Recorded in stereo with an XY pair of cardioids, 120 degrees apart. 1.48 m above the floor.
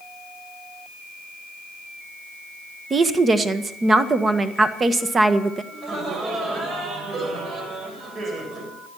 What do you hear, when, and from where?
2.9 s a woman speaking: 30° right, 1.5 m
5.7 s laughter: 45° right, 8 m